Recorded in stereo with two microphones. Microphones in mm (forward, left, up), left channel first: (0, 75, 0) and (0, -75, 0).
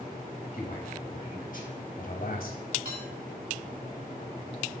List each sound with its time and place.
0.5 s a man speaking: 65° left (ahead or behind), 5 m
2.9 s dishes clattering: 85° right, 3.5 m